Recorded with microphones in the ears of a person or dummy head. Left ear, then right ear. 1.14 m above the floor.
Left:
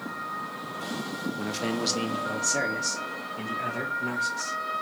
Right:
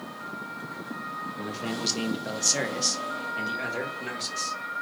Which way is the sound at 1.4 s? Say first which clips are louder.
Left 3 dB; 30° left (ahead or behind).